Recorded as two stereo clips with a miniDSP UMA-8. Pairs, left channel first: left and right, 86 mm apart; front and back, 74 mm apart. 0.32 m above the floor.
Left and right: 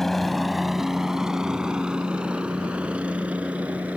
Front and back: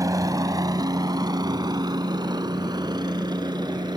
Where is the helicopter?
175° left; by 4.0 s 165° right.